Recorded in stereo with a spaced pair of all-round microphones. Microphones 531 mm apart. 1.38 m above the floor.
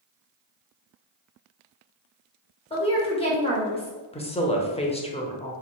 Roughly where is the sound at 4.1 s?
Centre.